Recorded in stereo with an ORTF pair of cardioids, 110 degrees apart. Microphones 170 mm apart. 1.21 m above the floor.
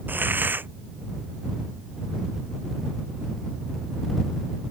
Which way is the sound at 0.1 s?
10° right.